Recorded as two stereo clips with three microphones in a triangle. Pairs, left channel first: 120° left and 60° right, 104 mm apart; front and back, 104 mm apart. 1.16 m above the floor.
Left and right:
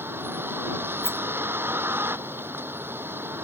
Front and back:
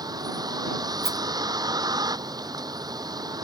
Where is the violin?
I don't hear a violin.